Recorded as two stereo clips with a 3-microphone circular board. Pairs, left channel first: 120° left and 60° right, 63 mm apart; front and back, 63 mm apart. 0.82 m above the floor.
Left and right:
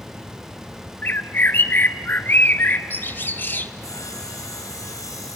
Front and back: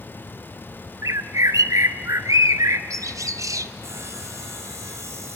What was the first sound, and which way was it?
A bird, 170° left.